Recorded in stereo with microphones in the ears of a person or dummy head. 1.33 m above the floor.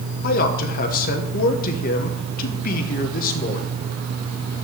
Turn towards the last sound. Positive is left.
turn(degrees=45)  # may be behind; listen again after turning